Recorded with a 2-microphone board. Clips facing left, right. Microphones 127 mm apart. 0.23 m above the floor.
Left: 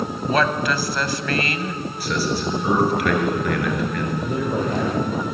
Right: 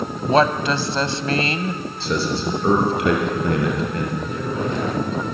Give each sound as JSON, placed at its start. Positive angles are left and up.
{"t": 0.3, "sound": "a woman speaking", "side_deg": -30, "distance_m": 1.1}
{"t": 2.0, "sound": "a man speaking", "side_deg": -25, "distance_m": 4.5}
{"t": 4.2, "sound": "a man speaking", "side_deg": 45, "distance_m": 8.0}